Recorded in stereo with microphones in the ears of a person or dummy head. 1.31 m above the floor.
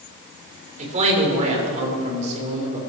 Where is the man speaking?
45° right (ahead or behind), 4.5 m.